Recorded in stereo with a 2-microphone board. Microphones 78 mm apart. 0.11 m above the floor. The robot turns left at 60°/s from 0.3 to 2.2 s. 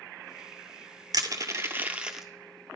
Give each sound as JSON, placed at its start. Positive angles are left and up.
{"t": 1.1, "sound": "crushing", "side_deg": -60, "distance_m": 0.5}